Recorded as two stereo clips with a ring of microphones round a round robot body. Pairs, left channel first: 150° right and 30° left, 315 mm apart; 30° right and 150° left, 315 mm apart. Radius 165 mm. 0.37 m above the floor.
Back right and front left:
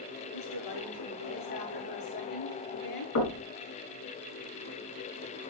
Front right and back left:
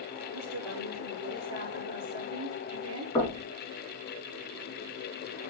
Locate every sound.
0.3 s a woman speaking: 165° right, 7 m
3.1 s knocking: 110° right, 3.5 m